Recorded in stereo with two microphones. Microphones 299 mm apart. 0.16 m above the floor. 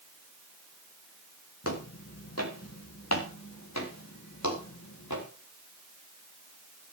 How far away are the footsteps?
About 4 m.